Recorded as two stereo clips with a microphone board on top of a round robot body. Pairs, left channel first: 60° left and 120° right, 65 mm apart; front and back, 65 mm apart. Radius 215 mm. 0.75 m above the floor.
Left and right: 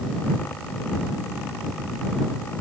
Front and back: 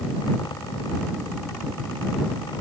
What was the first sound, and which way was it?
Only background noise.